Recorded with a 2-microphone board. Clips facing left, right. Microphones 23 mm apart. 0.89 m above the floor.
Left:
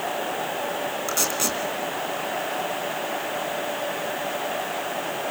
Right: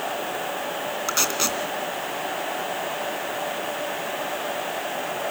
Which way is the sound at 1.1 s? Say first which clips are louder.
Right 3 dB; 20° right (ahead or behind).